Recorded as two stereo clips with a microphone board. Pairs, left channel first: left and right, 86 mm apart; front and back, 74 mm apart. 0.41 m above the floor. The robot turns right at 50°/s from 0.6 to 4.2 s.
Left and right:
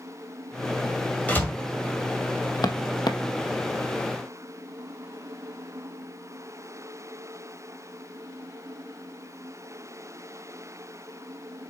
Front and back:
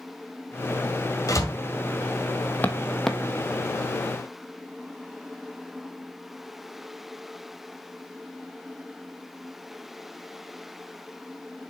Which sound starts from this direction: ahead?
A door slam, at 1.3 s.